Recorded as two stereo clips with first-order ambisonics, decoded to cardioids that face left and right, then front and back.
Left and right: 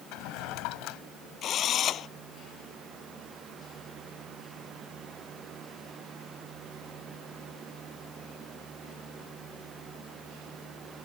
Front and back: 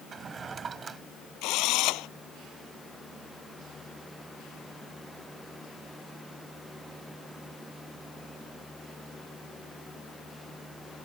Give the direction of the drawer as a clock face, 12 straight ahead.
8 o'clock.